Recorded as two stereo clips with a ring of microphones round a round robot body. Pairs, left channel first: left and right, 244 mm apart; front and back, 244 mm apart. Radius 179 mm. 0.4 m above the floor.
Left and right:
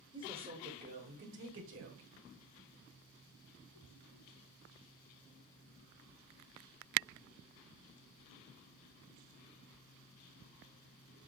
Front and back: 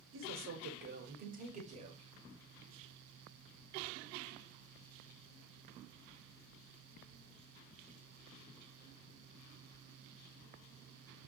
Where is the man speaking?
160° right, 1.5 m; by 2.1 s 110° right, 1.7 m.